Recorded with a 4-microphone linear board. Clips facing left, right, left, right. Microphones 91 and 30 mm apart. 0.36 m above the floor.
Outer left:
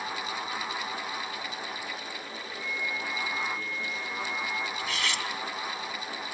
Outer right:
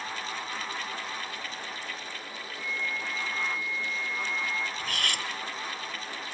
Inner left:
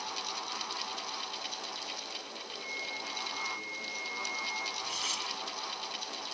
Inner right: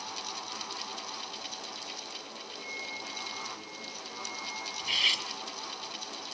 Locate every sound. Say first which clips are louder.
2.5 s a flute: even, inner left 1 dB; 5° left (ahead or behind), 7.5 m
4.8 s cutlery clinking: outer left 1 dB, inner right 8 dB; 50° right (ahead or behind), 1.8 m